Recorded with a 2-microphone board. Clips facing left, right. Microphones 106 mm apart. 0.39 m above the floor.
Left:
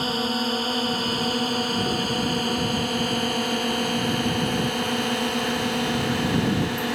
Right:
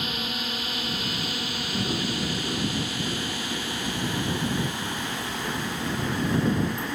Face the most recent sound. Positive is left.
turn(degrees=75)  # may be behind; listen again after turning